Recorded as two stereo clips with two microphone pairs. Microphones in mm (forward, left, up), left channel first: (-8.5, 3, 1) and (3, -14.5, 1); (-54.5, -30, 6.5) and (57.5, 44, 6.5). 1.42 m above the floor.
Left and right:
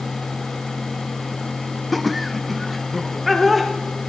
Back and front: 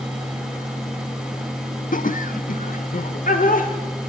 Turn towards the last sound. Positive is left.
turn(degrees=-145)